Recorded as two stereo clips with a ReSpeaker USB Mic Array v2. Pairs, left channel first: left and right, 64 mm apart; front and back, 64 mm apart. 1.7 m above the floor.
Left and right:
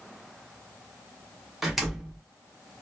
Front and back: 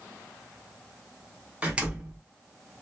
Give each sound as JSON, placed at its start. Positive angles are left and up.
{"t": 1.6, "sound": "a door slam", "azimuth_deg": -170, "distance_m": 0.8}